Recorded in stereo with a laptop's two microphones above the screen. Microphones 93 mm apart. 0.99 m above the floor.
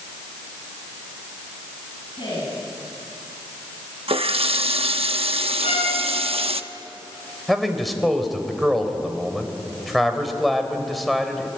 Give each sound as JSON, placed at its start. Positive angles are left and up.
{"t": 2.1, "sound": "a woman speaking", "side_deg": 60, "distance_m": 9.0}
{"t": 4.1, "sound": "a running tap", "side_deg": -90, "distance_m": 1.0}
{"t": 5.6, "sound": "a violin", "side_deg": 85, "distance_m": 6.5}
{"t": 7.5, "sound": "a man speaking", "side_deg": 0, "distance_m": 4.0}